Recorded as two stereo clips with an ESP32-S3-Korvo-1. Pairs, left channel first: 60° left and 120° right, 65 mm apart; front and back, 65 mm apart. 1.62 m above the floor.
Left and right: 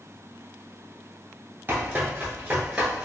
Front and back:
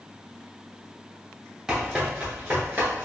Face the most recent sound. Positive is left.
turn(degrees=175)